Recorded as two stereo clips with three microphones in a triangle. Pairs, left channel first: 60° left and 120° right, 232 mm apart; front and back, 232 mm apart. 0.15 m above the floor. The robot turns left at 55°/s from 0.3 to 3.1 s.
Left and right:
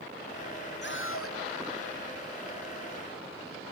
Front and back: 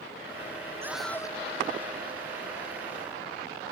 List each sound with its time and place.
0.8 s a scream: 100° left; by 1.4 s 70° left